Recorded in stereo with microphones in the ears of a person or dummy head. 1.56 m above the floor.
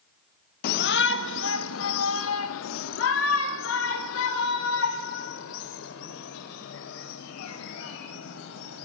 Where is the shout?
55° left (ahead or behind), 1.4 m; by 8.9 s 75° left (ahead or behind), 9 m.